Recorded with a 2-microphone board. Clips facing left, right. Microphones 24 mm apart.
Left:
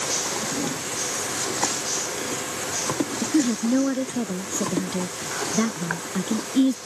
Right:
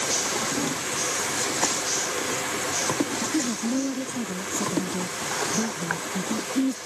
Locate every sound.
3.2 s a woman speaking: 45° left (ahead or behind)